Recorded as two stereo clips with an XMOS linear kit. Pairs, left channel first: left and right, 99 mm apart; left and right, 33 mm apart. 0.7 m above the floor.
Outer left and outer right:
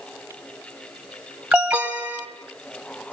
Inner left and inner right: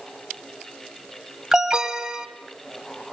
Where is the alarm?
10° right (ahead or behind), 2 m.